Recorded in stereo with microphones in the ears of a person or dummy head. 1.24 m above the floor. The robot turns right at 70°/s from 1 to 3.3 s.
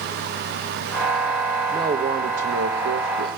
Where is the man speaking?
175° right, 1.3 m; by 3.4 s 60° right, 1.3 m.